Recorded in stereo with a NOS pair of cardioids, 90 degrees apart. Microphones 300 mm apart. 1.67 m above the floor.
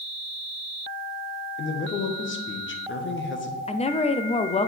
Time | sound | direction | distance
1.6 | a man speaking | 40° left | 1.3 m
3.7 | a woman speaking | 20° left | 0.6 m